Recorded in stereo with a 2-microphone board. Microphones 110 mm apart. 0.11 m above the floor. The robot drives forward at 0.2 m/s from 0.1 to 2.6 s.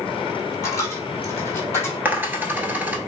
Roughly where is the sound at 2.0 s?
Centre.